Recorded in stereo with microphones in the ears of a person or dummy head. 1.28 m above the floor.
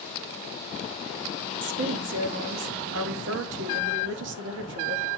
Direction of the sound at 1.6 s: 60° right (ahead or behind).